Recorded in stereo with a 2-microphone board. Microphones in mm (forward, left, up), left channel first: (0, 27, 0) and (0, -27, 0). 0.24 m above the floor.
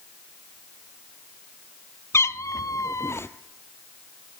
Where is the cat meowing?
55° left (ahead or behind), 0.6 m; by 3.3 s 45° left (ahead or behind), 0.6 m.